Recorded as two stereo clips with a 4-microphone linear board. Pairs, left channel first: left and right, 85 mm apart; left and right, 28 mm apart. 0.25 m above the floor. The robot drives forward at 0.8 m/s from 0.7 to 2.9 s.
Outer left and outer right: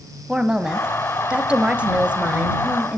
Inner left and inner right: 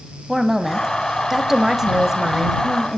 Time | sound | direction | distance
0.3 | a woman speaking | 10° right (ahead or behind) | 1.5 m